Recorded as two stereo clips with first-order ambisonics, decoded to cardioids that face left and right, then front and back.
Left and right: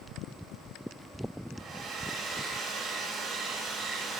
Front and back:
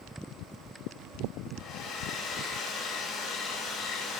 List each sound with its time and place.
1.6 s a hair dryer: 35° right, 1.4 m